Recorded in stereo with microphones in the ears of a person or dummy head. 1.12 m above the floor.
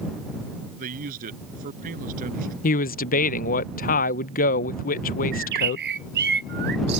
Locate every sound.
0.8 s a man speaking: 45° right (ahead or behind)
2.6 s a man speaking: 45° left (ahead or behind)
5.3 s a bird: 60° right (ahead or behind)